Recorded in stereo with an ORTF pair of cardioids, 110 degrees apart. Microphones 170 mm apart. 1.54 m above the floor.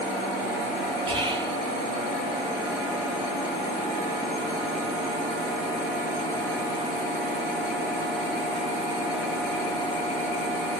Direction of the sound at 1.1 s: 30° right.